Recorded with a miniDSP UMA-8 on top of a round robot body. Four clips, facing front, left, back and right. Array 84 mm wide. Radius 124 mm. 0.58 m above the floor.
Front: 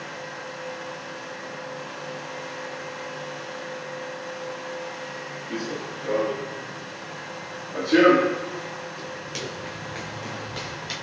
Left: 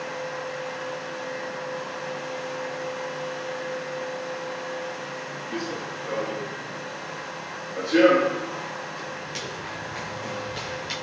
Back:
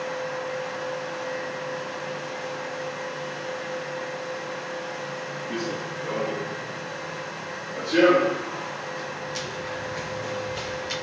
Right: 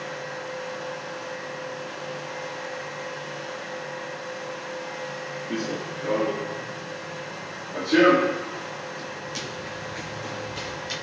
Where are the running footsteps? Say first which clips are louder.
Right 2 dB, even; 110° right, 1.3 m; by 10.9 s 35° left, 1.7 m.